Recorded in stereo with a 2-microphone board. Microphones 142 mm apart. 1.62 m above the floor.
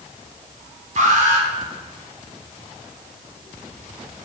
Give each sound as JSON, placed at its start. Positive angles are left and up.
{"t": 1.0, "sound": "an alarm", "side_deg": -65, "distance_m": 4.5}